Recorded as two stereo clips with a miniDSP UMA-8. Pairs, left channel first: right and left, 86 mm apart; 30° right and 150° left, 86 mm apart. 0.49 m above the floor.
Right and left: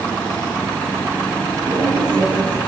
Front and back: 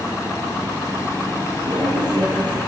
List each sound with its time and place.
1.7 s a woman speaking: 130° left, 10 m